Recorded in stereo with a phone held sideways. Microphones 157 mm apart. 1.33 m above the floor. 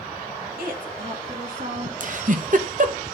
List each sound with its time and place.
0.6 s a woman speaking: 65° right (ahead or behind), 1.9 m
2.0 s a giggle: 55° right (ahead or behind), 0.9 m